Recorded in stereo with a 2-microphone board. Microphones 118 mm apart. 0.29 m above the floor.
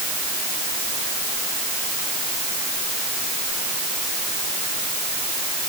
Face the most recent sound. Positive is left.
No sound to turn to.